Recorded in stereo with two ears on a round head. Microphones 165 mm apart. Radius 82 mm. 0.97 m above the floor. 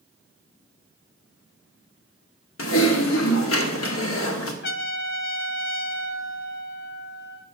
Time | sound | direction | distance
2.6 | typing on a keyboard | 85° left | 1.5 m
4.6 | a trumpet | 55° left (ahead or behind) | 1.1 m